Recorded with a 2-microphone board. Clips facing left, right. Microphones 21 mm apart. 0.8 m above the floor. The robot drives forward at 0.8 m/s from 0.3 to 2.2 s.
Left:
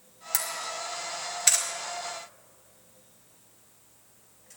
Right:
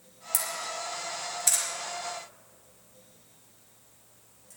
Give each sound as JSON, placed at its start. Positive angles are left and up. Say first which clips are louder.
{"t": 0.3, "sound": "a camera shutter", "louder": "left 1 dB", "side_deg": 45, "distance_m": 2.5}